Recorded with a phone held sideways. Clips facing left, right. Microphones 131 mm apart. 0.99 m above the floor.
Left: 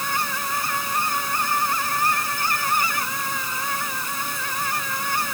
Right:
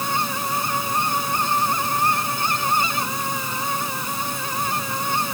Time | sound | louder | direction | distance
0.0 | a fan | right 2 dB | 20° right (ahead or behind) | ?